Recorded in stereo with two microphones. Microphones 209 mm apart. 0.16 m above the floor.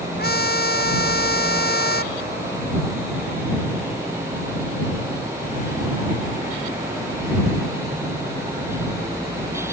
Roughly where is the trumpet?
Left.